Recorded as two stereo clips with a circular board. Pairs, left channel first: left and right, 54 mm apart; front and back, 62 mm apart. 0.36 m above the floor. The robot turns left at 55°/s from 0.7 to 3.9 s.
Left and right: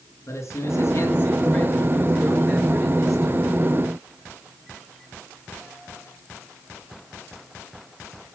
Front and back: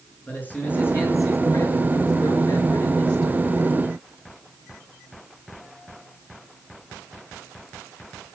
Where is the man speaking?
65° left, 5 m; by 3.5 s 90° right, 5 m.